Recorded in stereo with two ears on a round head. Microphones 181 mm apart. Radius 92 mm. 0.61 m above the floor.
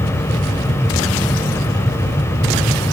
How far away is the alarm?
No alarm in this recording.